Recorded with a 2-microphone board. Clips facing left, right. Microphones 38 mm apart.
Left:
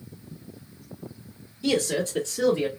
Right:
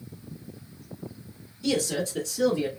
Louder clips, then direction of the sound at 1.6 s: Left 2 dB; 20° left (ahead or behind).